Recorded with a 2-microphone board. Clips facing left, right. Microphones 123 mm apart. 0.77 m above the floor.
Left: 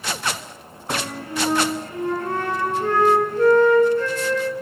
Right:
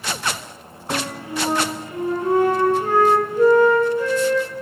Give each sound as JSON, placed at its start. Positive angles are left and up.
{"t": 0.9, "sound": "a flute", "side_deg": -10, "distance_m": 3.5}